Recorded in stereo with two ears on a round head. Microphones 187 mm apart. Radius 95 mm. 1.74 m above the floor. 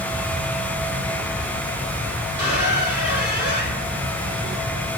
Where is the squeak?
30° left (ahead or behind), 2.0 m.